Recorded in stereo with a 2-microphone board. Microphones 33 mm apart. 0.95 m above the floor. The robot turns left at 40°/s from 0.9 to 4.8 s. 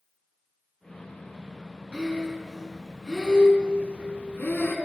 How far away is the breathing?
About 3.5 m.